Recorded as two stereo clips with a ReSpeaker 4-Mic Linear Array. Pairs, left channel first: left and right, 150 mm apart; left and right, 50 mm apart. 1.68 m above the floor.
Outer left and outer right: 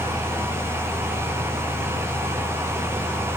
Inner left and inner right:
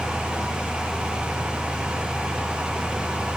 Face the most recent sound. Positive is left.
No sound to turn to.